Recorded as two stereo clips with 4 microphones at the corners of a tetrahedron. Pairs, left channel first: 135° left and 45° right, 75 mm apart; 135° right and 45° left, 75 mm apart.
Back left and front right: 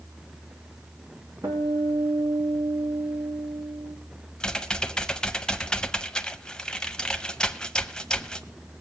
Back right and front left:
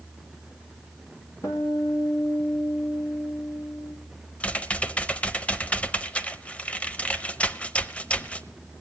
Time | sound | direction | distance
1.4 | a guitar | 90° right | 2.5 m
4.4 | typing on a keyboard | 170° right | 0.5 m